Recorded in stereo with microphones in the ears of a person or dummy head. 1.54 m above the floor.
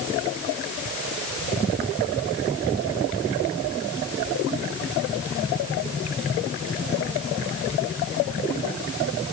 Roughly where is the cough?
I don't hear a cough.